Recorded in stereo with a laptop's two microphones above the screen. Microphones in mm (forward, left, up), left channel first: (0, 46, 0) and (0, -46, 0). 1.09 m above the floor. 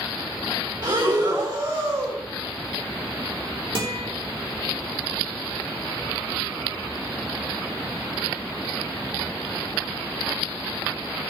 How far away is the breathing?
About 2.0 m.